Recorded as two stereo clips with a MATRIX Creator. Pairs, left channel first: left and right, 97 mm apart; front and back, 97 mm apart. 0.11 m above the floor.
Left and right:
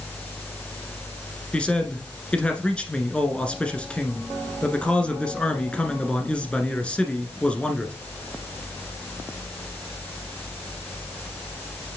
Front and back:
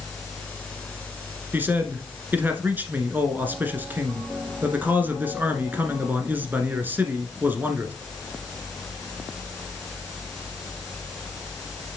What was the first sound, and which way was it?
A man speaking, 150° left.